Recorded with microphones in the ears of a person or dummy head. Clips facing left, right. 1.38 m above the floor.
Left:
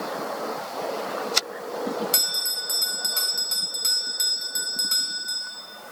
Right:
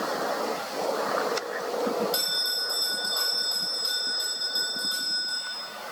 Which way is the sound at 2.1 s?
35° left (ahead or behind).